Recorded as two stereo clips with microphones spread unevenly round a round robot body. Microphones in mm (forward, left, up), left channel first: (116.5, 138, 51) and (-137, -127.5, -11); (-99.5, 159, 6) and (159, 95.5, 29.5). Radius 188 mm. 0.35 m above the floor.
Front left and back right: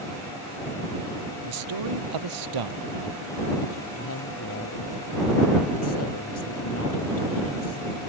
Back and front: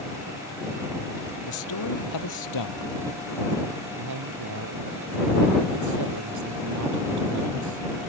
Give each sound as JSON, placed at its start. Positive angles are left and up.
{"t": 1.5, "sound": "a man speaking", "azimuth_deg": -165}
{"t": 4.0, "sound": "a woman speaking", "azimuth_deg": -10}